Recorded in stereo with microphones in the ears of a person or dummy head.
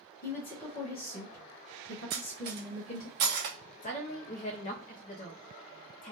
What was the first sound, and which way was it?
A woman speaking, 45° left (ahead or behind).